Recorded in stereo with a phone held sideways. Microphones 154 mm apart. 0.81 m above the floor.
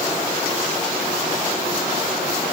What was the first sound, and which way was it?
Only background noise.